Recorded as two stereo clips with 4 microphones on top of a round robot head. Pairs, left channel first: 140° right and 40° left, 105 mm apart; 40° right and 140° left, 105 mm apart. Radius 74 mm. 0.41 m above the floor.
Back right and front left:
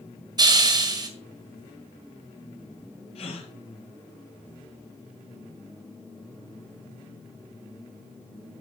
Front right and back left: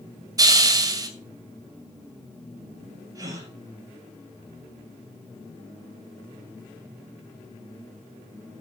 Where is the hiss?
85° left, 2.5 m.